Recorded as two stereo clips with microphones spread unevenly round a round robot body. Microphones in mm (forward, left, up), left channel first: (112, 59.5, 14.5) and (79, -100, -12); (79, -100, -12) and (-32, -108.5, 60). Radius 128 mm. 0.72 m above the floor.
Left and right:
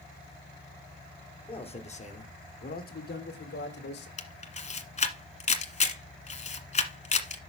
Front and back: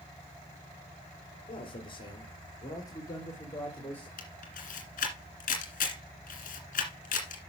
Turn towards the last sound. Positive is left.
turn(degrees=40)